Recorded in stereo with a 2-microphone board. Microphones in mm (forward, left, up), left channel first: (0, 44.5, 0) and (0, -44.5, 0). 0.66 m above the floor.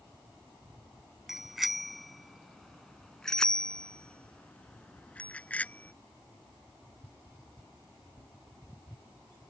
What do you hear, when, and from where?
1.3 s a bicycle bell: 5° right (ahead or behind); by 5.9 s 20° left (ahead or behind)